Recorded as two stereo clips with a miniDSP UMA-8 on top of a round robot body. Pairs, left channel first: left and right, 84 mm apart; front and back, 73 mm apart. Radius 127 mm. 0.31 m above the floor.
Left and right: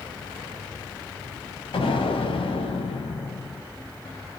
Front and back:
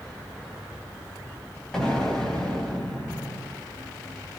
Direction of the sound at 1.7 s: 80° left.